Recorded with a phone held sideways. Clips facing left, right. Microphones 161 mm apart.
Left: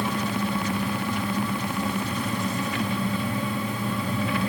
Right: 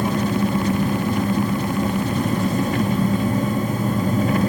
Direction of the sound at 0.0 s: 45° right (ahead or behind).